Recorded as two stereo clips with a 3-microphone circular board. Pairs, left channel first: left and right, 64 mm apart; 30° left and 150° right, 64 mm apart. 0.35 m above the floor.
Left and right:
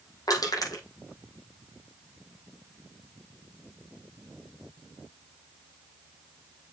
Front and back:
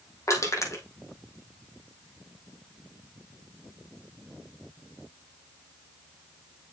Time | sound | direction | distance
0.3 | crushing | 70° left | 5 m